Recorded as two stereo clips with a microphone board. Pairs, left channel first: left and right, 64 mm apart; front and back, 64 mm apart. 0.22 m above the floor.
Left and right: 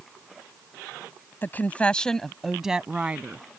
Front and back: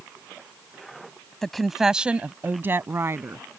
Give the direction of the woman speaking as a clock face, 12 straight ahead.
9 o'clock.